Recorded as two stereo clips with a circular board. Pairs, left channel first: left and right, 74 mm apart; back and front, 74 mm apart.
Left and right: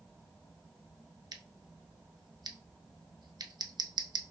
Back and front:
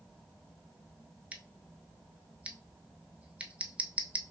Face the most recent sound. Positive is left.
turn(degrees=-70)